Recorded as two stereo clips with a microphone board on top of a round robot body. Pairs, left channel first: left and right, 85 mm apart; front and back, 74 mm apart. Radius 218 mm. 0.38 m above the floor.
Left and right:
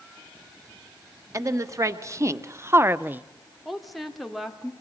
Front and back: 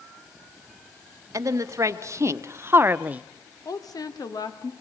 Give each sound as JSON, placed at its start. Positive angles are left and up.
{"t": 1.3, "sound": "a woman speaking", "azimuth_deg": -140, "distance_m": 2.5}
{"t": 3.6, "sound": "a woman speaking", "azimuth_deg": 0, "distance_m": 2.5}